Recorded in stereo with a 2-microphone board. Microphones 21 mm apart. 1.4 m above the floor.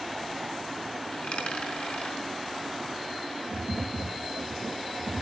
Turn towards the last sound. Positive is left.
turn(degrees=-70)  # may be behind; listen again after turning